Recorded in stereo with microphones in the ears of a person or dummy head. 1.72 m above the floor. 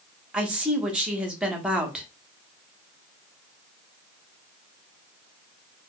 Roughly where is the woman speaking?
Centre.